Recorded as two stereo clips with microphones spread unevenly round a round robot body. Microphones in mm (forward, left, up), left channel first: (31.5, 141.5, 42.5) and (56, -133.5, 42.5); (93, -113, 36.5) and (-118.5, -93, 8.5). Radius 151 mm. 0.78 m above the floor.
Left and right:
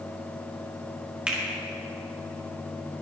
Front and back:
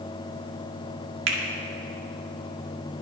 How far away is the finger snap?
About 1.9 m.